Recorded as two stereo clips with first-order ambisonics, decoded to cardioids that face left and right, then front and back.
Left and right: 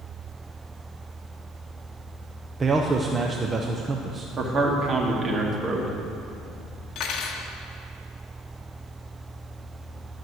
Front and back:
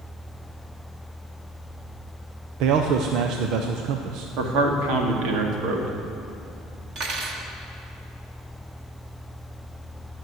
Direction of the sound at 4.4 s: 155° right.